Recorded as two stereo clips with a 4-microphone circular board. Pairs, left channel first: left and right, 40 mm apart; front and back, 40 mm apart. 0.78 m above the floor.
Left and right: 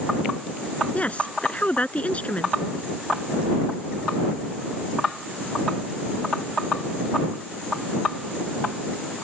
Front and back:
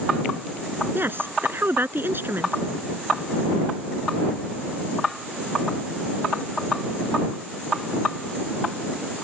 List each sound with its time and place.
0.9 s a woman speaking: 145° left